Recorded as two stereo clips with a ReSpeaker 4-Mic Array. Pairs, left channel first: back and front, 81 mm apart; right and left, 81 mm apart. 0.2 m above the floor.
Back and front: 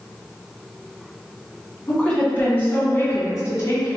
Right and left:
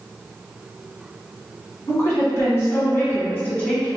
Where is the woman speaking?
110° right, 1.7 m; by 4.0 s 155° right, 2 m.